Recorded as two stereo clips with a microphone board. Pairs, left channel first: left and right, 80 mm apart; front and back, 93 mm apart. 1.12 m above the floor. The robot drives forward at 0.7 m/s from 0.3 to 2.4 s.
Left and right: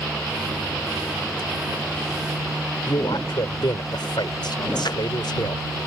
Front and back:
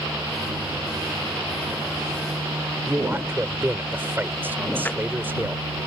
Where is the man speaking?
110° left.